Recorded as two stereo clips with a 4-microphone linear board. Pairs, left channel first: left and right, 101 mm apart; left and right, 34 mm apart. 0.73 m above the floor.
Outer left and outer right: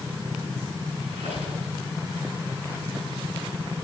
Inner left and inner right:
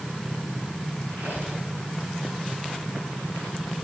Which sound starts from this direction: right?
A squeak, at 1.1 s.